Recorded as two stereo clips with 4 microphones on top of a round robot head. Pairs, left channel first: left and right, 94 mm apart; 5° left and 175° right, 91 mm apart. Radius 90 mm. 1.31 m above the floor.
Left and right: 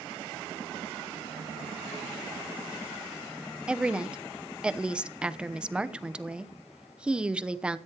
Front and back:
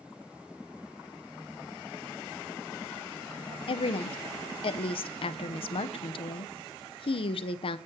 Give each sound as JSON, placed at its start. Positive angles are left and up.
{"t": 3.7, "sound": "a woman speaking", "azimuth_deg": -10, "distance_m": 0.9}